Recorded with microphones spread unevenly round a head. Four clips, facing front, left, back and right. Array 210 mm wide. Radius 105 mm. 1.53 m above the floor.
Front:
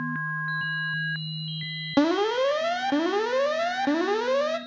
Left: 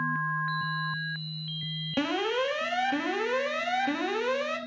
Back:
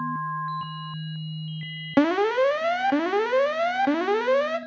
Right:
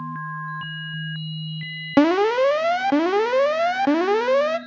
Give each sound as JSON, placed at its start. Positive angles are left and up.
{"t": 2.0, "sound": "an alarm", "azimuth_deg": -85, "distance_m": 1.2}